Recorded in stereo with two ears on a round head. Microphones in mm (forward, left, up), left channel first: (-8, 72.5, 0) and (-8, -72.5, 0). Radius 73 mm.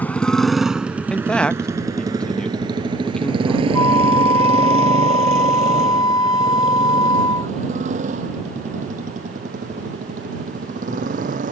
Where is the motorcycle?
10° left (ahead or behind); by 11.5 s 50° right (ahead or behind).